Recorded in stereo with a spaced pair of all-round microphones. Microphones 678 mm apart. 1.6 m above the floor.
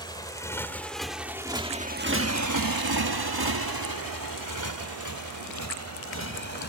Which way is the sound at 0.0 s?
5° left (ahead or behind).